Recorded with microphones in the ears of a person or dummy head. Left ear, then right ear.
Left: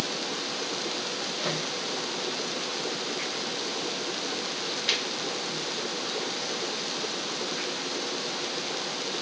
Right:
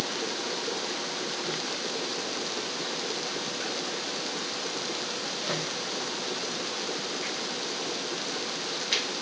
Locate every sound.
Only background noise.